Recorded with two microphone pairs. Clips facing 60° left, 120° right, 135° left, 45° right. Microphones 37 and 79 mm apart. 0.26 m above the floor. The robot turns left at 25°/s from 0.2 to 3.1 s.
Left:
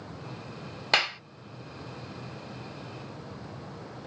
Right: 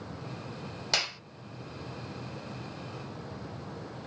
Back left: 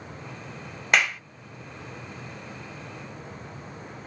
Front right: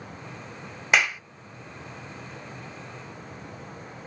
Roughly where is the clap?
Ahead left.